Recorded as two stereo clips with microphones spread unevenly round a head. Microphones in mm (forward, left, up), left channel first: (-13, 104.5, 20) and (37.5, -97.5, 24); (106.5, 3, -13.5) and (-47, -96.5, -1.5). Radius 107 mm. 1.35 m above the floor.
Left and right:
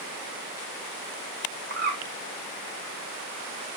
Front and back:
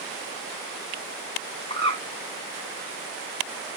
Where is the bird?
30° right, 2.5 m.